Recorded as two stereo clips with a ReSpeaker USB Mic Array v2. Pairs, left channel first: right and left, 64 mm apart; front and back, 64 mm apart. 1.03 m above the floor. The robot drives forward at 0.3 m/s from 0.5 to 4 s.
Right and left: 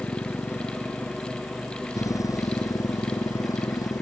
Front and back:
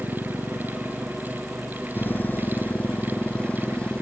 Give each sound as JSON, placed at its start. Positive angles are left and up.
{"t": 0.0, "sound": "a motorcycle", "azimuth_deg": -45}